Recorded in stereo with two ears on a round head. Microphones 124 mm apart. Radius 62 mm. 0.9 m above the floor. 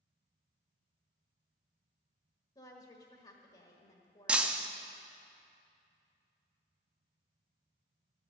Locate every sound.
2.5 s a woman speaking: 30° left (ahead or behind), 1.5 m
4.3 s breaking glass: 10° right (ahead or behind), 0.6 m